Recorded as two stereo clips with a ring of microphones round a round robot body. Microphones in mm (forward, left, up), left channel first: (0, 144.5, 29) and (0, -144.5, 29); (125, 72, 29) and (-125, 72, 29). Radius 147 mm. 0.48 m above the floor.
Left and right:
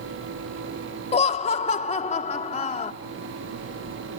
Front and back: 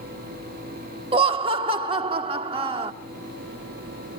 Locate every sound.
1.1 s laughter: 135° left, 0.7 m